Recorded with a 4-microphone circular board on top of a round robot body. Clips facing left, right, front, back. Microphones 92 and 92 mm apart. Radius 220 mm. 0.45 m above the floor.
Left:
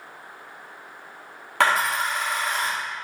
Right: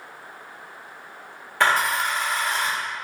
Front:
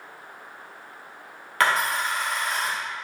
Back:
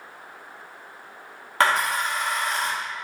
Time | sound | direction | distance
1.6 | a dropped coin | 115° left | 1.0 m